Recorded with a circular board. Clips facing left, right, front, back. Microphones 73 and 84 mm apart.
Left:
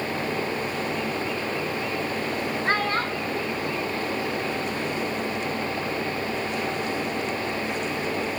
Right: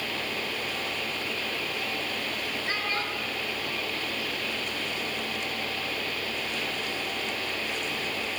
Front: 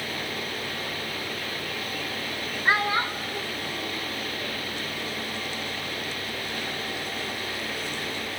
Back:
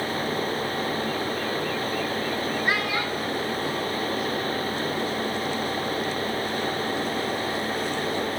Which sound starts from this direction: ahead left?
A child speaking, at 2.6 s.